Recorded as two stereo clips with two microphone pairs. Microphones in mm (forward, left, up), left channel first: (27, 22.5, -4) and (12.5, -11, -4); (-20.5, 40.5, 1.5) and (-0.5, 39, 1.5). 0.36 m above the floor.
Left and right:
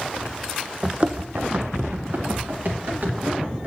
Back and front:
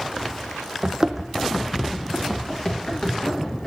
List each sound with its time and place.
0.8 s running footsteps: 45° right, 0.7 m; by 3.7 s 145° right, 3.5 m